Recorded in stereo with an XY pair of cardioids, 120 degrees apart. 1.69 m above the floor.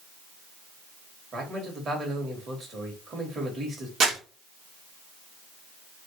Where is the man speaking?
40° right, 2.0 m.